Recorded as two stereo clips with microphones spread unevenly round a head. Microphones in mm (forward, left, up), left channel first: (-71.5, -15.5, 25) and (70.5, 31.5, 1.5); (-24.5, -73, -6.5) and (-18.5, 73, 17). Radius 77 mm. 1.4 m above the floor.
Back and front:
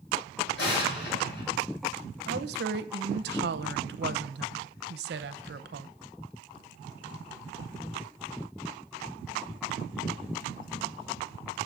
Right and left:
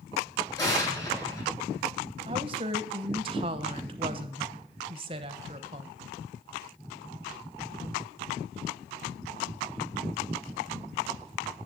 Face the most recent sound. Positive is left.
turn(degrees=30)